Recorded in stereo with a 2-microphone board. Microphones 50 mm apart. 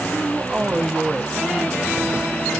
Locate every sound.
0.1 s a man speaking: 20° right (ahead or behind), 0.5 m